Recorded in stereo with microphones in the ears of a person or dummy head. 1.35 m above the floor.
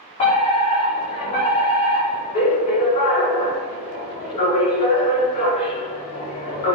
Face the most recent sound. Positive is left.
turn(degrees=35)  # may be behind; listen again after turning